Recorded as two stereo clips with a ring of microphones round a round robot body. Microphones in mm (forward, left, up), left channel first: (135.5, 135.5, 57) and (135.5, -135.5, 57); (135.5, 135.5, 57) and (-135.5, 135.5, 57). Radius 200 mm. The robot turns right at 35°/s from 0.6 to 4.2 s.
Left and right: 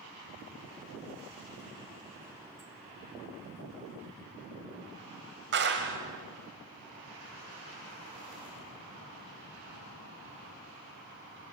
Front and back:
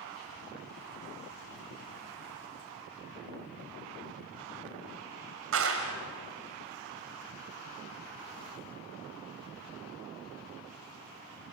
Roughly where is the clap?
Behind right.